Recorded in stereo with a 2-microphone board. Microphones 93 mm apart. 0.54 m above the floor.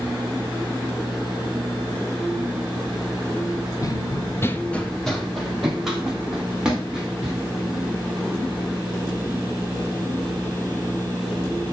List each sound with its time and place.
3.8 s running footsteps: 45° left (ahead or behind), 0.9 m; by 7.4 s 10° right (ahead or behind), 5 m